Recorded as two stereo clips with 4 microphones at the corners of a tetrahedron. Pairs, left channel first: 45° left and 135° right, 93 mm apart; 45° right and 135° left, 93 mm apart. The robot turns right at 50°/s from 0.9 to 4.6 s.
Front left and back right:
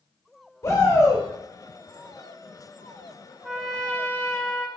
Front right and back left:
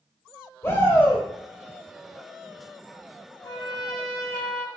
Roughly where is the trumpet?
Ahead right.